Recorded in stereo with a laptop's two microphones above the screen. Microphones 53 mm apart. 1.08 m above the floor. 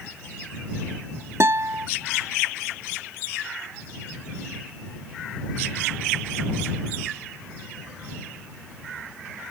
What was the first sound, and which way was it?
A guitar, 55° right (ahead or behind).